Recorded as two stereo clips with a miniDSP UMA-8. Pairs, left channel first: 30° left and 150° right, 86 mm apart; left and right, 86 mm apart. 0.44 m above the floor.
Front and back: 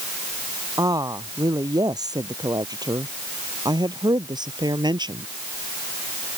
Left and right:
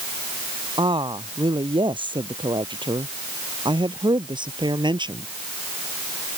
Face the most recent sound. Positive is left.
turn(degrees=-115)